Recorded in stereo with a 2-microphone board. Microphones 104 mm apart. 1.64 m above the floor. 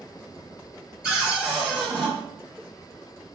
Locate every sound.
1.0 s a cupboard door: 10° right (ahead or behind), 1.6 m